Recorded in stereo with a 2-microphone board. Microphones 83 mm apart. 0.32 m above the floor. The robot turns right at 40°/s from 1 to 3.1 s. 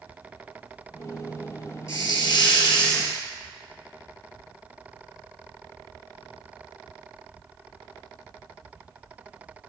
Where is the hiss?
40° left, 2.5 m; by 3.2 s 90° left, 2.5 m.